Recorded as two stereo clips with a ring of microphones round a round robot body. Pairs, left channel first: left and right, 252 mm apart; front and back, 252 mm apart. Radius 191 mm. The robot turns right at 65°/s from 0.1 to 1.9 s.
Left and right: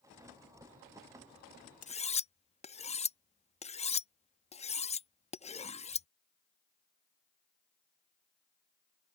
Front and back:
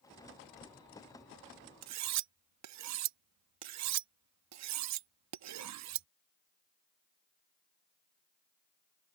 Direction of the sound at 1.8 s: 155° left.